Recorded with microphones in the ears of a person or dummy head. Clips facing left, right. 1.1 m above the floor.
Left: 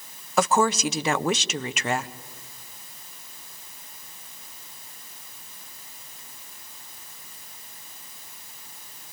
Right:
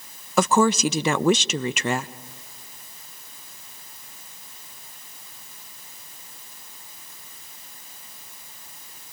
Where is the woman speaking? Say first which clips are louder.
Right 3 dB; 75° right (ahead or behind), 0.8 m.